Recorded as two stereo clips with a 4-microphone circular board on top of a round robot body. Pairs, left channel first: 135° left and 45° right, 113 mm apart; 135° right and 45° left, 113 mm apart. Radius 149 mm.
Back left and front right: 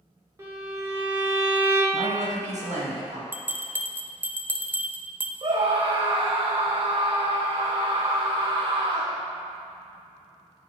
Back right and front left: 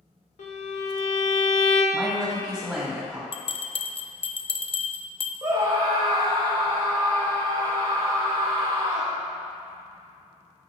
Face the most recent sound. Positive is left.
turn(degrees=-10)